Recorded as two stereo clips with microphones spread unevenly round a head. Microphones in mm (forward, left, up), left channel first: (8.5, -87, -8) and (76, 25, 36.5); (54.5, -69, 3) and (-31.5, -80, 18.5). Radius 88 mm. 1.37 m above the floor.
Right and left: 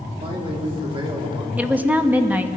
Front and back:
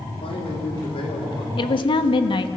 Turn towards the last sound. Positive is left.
turn(degrees=-15)